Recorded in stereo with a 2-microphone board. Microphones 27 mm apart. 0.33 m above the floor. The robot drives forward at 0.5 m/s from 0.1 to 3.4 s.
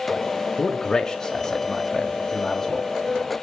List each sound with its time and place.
0.6 s a man speaking: 30° left (ahead or behind), 1.3 m; by 2.9 s 15° left (ahead or behind), 2 m